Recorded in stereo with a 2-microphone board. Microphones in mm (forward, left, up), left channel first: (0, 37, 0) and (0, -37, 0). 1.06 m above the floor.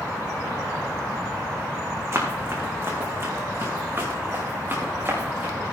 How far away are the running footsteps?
About 4 m.